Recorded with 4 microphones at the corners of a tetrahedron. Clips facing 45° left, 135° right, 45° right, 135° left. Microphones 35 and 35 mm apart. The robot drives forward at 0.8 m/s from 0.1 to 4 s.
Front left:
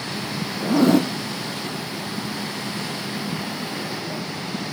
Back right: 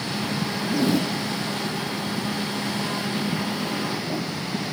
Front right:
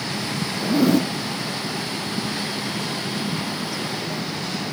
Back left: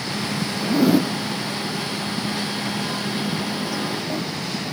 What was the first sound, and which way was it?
A zipper, 35° left.